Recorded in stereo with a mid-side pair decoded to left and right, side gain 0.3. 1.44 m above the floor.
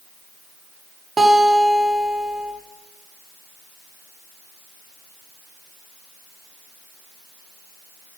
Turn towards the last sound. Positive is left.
turn(degrees=-50)